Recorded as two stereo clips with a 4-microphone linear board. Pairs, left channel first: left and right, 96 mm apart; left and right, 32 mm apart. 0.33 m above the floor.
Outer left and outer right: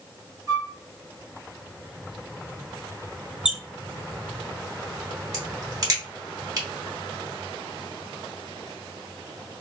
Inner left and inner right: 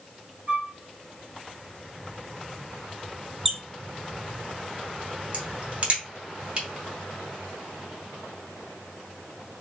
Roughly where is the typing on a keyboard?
I don't hear typing on a keyboard.